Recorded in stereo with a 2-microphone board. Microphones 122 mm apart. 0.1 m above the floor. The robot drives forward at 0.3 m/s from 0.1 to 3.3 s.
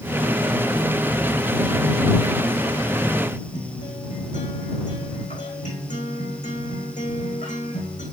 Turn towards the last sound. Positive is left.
turn(degrees=75)  # may be behind; listen again after turning